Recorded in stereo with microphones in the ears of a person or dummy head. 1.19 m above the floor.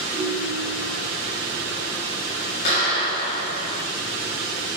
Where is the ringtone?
45° right (ahead or behind), 3 m.